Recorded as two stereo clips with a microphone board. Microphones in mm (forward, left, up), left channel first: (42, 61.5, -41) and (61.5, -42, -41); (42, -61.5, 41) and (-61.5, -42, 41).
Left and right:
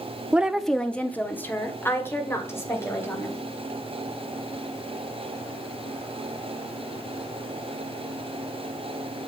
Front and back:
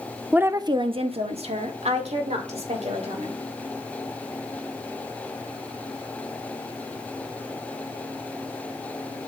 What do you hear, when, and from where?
0.3 s a woman speaking: 130° right, 0.6 m; by 3.4 s 165° left, 3.5 m